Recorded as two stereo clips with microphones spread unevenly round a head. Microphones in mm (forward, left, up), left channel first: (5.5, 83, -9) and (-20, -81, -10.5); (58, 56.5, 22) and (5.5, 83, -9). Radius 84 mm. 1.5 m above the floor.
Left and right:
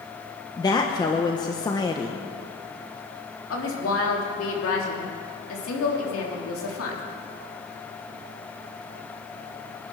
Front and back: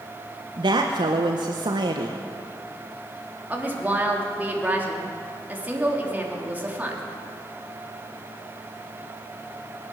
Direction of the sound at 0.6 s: 150° left.